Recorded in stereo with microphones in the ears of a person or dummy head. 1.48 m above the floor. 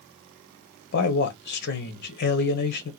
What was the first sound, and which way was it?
A man speaking, 55° left (ahead or behind).